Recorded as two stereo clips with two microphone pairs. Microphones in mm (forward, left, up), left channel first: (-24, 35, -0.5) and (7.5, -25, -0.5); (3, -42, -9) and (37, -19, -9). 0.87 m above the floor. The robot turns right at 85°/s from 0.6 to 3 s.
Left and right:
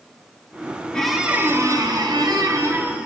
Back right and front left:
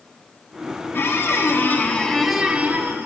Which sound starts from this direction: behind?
A squeak, at 0.9 s.